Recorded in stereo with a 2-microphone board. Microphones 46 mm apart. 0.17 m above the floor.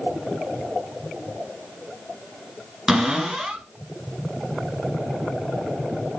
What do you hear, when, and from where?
2.9 s a cupboard door: 5° right (ahead or behind), 1.6 m